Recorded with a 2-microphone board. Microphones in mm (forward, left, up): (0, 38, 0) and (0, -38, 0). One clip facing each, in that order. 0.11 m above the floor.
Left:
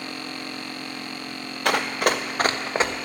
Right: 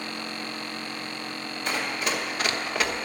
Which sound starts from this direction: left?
Running footsteps, at 1.6 s.